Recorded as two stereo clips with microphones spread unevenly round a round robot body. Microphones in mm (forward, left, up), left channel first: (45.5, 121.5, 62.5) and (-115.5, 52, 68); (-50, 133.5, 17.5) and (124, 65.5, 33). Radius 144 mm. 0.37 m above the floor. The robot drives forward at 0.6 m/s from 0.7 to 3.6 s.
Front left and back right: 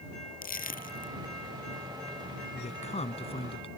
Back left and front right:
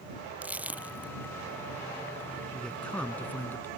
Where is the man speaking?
70° left; by 3.7 s 80° left.